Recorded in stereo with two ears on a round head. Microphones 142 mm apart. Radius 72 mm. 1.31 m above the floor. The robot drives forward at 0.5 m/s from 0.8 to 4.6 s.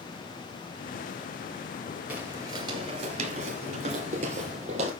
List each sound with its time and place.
2.1 s footsteps: 10° right (ahead or behind), 1.7 m; by 4.9 s 40° right (ahead or behind), 3.5 m